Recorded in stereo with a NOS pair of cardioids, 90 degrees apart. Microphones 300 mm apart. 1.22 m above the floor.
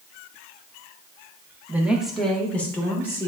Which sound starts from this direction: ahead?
A woman speaking, at 1.7 s.